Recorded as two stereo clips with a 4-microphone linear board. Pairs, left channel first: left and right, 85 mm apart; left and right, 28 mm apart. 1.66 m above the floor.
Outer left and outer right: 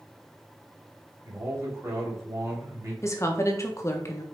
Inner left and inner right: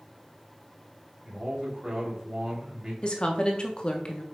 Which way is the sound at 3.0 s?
35° left (ahead or behind).